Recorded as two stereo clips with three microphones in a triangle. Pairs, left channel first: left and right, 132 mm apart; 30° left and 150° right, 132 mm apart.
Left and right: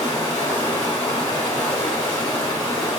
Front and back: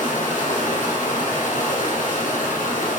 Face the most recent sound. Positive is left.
turn(degrees=30)